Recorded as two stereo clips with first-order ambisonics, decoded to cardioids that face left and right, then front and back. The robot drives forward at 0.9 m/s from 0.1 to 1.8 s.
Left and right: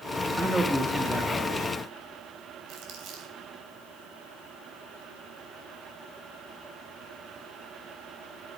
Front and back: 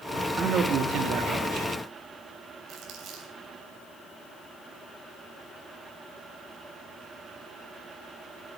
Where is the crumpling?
130° right, 3 m.